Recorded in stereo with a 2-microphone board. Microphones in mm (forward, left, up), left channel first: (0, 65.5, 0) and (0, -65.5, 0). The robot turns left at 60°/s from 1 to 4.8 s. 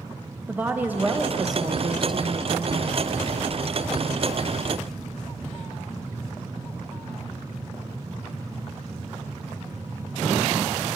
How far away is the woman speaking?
About 0.6 m.